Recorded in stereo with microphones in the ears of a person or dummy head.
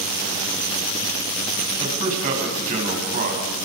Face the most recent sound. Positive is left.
turn(degrees=-40)  # may be behind; listen again after turning